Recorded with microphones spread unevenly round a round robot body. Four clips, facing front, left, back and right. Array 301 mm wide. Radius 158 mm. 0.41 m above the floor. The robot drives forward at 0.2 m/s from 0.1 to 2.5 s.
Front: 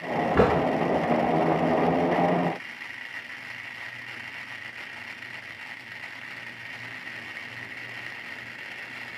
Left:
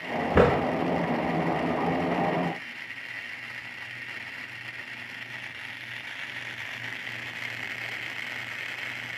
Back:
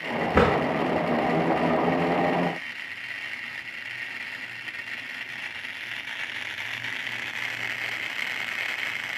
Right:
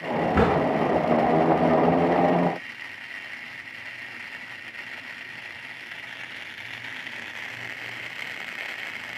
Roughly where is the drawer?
Behind left.